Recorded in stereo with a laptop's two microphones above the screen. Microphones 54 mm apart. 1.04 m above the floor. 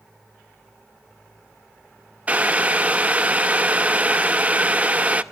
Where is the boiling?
25° right (ahead or behind), 0.7 m.